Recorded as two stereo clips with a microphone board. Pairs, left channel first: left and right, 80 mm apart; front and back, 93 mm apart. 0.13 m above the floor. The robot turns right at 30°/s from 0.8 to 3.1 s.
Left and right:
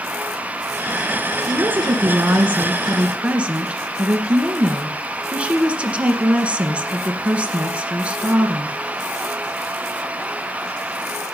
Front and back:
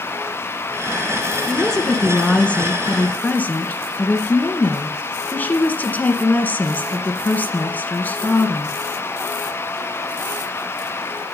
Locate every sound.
1.5 s a woman speaking: 90° right, 1.7 m; by 8.8 s 40° right, 1.7 m